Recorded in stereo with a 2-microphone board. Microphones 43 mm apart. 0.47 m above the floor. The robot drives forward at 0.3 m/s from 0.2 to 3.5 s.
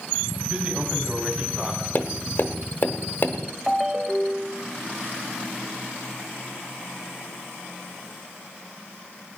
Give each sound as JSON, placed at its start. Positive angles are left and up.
{"t": 0.5, "sound": "a man speaking", "side_deg": -25, "distance_m": 3.0}
{"t": 1.9, "sound": "tapping", "side_deg": 45, "distance_m": 1.0}
{"t": 3.7, "sound": "a ringtone", "side_deg": -10, "distance_m": 1.1}